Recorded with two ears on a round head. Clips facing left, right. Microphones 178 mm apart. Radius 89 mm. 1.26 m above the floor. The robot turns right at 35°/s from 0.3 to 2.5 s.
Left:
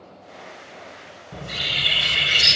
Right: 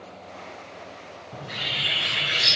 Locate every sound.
1.3 s a bird: 80° left, 1.4 m; by 2.6 s 120° left, 1.4 m